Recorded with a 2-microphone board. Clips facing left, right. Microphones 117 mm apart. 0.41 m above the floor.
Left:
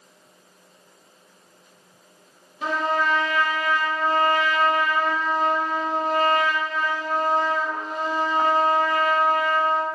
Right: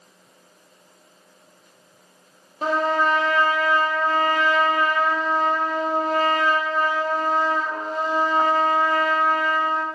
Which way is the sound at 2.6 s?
40° right (ahead or behind).